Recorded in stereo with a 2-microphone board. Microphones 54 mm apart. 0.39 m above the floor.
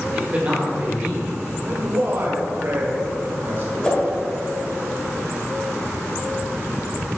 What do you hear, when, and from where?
0.1 s a man speaking: 30° right (ahead or behind), 1.6 m
1.6 s a man speaking: 45° right (ahead or behind), 1.4 m
3.8 s a whoosh: 15° left (ahead or behind), 1.3 m